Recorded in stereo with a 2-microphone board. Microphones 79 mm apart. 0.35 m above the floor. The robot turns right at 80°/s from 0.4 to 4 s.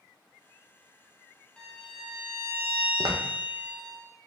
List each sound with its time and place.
1.6 s a violin: 10° left (ahead or behind), 0.8 m; by 4.0 s 5° right (ahead or behind), 0.8 m
3.0 s footsteps: 55° right (ahead or behind), 0.5 m